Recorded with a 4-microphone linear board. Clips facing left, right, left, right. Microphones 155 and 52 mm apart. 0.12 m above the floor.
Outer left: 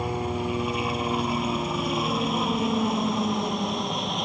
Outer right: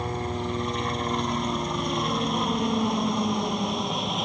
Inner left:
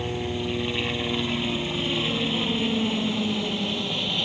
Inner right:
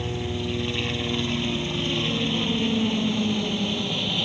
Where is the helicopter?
10° left (ahead or behind); by 4.3 s centre (ahead or behind).